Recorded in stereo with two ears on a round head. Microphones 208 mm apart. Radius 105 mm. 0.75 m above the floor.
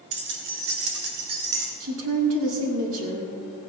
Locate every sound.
0.1 s keys jangling: 45° right (ahead or behind), 1.7 m; by 1.7 s 75° right (ahead or behind), 3.5 m
1.8 s a woman speaking: 65° right (ahead or behind), 1.9 m